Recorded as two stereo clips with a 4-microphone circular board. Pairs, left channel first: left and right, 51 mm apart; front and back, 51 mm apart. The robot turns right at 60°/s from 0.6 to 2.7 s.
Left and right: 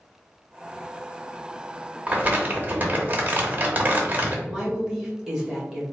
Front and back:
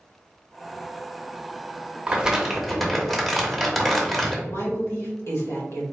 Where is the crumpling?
125° right, 0.9 m; by 4.4 s 85° right, 0.9 m.